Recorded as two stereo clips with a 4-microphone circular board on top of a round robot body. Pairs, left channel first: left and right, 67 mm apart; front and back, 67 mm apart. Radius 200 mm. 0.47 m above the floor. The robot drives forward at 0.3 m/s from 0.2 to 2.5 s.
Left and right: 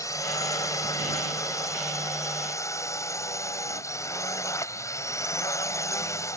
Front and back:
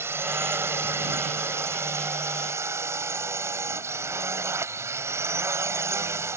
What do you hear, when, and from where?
0.0 s a drone: 130° left; by 6.4 s 135° left